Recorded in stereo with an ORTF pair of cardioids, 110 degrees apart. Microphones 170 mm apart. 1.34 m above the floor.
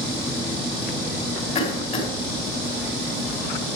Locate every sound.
1.6 s a cough: 40° left, 5.5 m